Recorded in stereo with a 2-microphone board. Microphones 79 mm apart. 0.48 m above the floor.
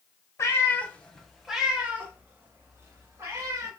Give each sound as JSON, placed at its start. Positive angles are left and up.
{"t": 0.4, "sound": "a cat meowing", "side_deg": 35, "distance_m": 0.8}